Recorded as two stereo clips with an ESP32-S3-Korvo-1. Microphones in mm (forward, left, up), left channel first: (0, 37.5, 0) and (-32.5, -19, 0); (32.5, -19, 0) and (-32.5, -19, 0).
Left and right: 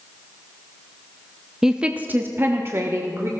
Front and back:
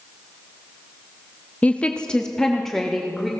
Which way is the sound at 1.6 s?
45° right.